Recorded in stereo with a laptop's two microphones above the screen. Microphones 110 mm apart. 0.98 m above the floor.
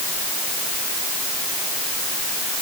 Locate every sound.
Only background noise.